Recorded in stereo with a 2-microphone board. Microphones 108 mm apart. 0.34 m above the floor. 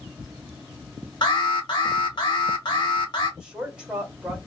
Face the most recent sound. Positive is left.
turn(degrees=-10)  # may be behind; listen again after turning